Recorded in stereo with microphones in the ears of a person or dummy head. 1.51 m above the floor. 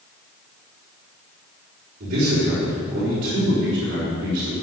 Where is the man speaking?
55° right (ahead or behind), 4.5 m.